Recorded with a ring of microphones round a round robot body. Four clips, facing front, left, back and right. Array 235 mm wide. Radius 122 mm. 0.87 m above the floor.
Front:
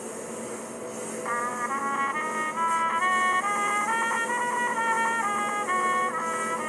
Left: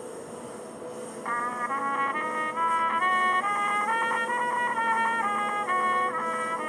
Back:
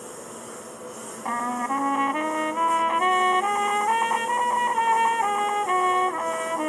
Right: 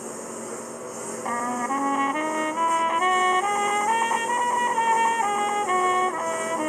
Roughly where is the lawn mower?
Right.